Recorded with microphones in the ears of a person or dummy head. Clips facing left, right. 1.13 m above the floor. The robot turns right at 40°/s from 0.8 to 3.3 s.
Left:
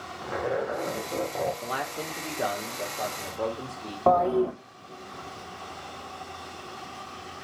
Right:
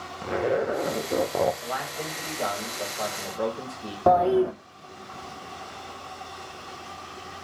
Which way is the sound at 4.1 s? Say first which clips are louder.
Right 2 dB; 10° right (ahead or behind).